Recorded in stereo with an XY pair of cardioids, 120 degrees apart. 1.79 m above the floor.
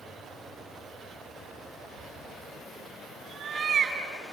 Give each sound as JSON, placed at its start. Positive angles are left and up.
{"t": 2.0, "sound": "a cat meowing", "azimuth_deg": -50, "distance_m": 4.5}